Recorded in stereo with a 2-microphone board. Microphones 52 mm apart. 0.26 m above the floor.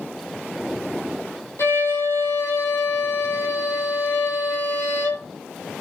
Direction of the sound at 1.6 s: 60° left (ahead or behind).